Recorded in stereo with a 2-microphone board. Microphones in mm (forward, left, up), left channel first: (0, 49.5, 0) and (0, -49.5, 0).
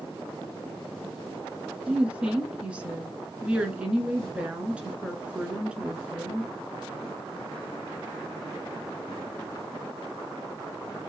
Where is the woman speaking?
10° right (ahead or behind), 1.4 m.